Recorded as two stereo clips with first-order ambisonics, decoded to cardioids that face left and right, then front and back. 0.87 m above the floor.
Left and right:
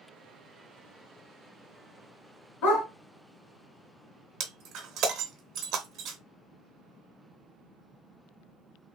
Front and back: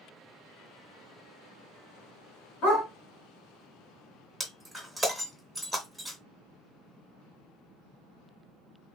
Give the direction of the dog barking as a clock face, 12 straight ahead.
11 o'clock.